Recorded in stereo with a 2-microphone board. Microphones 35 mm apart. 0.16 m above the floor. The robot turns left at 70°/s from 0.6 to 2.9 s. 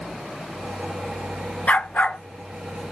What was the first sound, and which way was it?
A dog barking, 100° left.